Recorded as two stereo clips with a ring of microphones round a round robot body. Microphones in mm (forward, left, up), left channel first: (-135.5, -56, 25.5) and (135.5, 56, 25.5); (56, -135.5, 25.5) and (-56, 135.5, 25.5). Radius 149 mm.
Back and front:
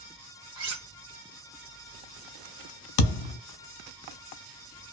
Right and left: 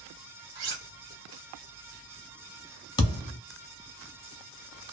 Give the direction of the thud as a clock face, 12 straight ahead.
5 o'clock.